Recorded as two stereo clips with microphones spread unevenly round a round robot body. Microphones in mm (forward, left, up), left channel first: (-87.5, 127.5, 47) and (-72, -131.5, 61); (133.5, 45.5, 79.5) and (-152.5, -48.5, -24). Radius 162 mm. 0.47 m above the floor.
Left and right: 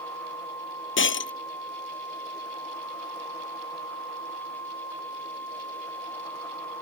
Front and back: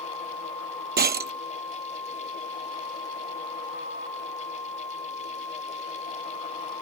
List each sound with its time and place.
1.0 s breaking glass: 135° left